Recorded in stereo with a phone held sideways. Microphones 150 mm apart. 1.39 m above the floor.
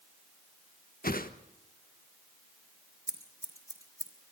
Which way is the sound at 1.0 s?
75° left (ahead or behind).